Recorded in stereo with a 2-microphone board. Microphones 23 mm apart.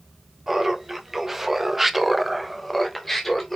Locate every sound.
0.5 s laughter: 15° right (ahead or behind), 1.8 m; by 3.6 s 10° left (ahead or behind), 1.2 m